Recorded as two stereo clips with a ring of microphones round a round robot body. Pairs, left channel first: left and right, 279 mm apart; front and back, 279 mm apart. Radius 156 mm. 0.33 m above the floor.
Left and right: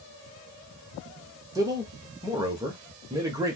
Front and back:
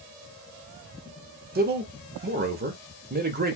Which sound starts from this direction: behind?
A man speaking, at 1.6 s.